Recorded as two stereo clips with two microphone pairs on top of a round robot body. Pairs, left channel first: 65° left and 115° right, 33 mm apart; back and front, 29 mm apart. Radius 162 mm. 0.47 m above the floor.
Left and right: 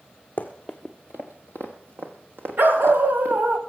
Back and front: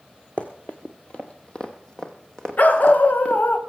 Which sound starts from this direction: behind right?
A dog barking, at 2.6 s.